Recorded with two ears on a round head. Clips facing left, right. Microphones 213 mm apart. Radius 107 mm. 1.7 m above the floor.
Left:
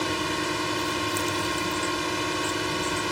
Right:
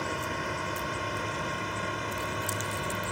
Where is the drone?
50° left (ahead or behind); by 3.1 s 55° left (ahead or behind).